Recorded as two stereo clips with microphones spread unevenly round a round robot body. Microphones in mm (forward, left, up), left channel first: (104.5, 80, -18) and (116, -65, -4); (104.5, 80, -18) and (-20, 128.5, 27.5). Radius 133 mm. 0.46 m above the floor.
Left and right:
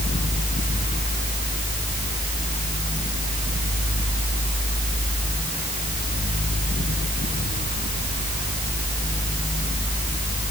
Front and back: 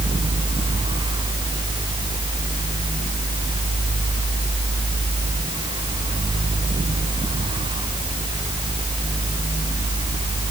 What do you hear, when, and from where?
Only background noise.